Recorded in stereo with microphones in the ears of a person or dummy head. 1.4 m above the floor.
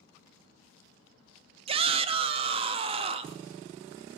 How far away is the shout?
About 0.5 m.